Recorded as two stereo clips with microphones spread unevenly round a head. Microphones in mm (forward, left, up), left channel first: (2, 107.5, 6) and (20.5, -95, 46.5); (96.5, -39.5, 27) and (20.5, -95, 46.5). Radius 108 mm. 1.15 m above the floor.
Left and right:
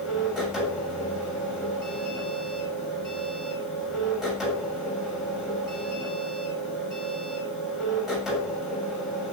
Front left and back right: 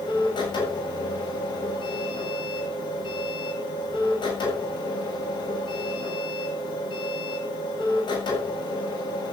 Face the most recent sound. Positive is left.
turn(degrees=5)